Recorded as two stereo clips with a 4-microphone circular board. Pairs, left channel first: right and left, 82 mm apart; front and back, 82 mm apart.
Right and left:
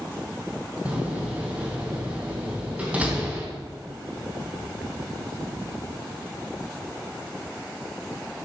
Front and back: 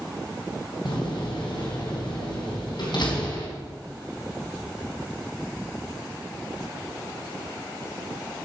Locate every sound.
0.8 s a door slam: 20° left, 3.5 m